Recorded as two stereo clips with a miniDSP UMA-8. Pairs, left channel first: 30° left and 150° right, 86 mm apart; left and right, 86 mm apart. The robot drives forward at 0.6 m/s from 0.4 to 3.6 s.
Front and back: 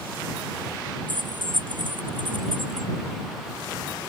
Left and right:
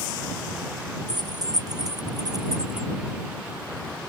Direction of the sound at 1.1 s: 130° right.